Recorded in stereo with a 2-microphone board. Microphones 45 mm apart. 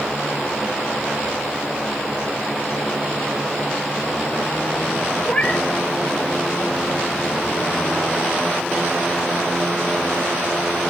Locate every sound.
5.2 s a cat meowing: 20° left (ahead or behind), 1.4 m